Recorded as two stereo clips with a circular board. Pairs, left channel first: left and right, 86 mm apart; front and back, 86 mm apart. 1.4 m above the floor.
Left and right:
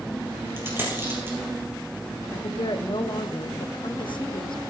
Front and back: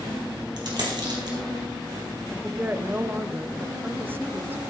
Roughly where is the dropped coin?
Behind right.